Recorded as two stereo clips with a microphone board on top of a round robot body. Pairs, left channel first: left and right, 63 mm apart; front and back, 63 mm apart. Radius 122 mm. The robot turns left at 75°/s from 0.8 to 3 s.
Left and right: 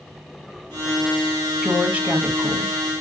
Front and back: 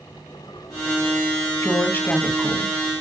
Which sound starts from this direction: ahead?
A woman speaking, at 1.6 s.